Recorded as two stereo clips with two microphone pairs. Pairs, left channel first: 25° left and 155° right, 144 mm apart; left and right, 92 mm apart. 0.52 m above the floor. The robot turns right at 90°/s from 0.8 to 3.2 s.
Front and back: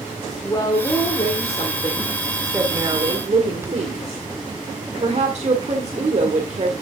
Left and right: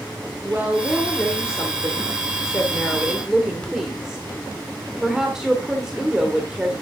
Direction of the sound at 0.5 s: 25° right.